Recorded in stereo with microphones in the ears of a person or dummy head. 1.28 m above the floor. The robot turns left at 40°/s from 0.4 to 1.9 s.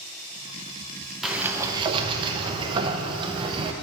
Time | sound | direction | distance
1.2 | a sliding door | centre (ahead or behind) | 0.5 m